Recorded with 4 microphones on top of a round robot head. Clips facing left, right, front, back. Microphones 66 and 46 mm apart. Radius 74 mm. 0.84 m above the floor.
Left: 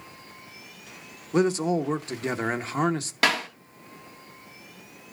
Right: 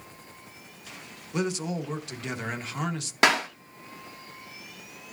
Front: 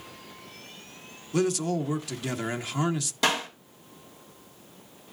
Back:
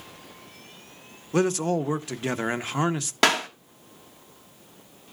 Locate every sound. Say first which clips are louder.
1.3 s a man speaking: left 7 dB, back 3 dB; 135° left, 0.8 m
3.2 s a clap: right 2 dB, back 5 dB; 155° right, 1.5 m